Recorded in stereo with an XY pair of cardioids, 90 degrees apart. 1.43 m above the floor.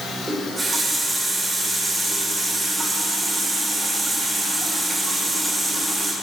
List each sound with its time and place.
0.3 s a running tap: 30° right, 3 m